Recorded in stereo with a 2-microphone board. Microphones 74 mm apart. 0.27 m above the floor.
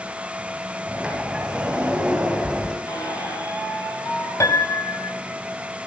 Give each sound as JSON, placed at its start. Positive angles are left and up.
{"t": 0.9, "sound": "a sliding door", "side_deg": -10, "distance_m": 3.5}
{"t": 2.9, "sound": "a squeak", "side_deg": 80, "distance_m": 6.0}
{"t": 4.4, "sound": "a piano", "side_deg": 45, "distance_m": 1.5}